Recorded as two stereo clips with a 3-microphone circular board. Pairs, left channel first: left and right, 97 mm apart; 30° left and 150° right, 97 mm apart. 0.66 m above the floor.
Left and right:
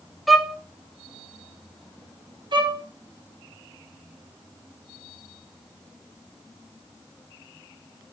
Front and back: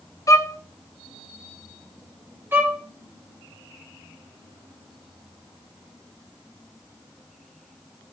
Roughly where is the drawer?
No drawer in this recording.